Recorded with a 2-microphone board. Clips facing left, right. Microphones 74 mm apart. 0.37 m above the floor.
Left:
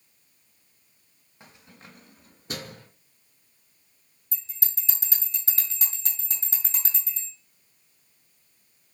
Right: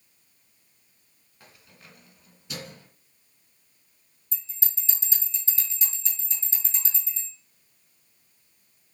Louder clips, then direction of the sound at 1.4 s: Left 3 dB; 20° left (ahead or behind).